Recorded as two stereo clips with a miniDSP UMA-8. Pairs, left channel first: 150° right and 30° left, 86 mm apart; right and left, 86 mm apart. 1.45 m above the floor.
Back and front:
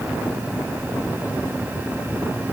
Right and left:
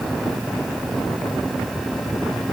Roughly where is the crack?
No crack in this recording.